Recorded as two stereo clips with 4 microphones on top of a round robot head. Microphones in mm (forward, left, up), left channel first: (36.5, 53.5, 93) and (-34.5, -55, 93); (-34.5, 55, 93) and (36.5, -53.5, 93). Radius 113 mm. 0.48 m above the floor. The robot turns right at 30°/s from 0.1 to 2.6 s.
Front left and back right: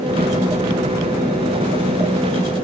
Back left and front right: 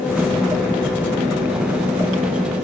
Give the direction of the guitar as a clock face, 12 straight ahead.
I don't hear a guitar.